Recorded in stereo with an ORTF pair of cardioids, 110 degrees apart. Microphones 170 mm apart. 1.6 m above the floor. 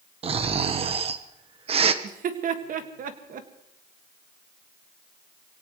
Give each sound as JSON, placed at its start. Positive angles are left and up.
{"t": 0.2, "sound": "snoring", "azimuth_deg": -35, "distance_m": 1.1}
{"t": 2.0, "sound": "laughter", "azimuth_deg": -55, "distance_m": 1.9}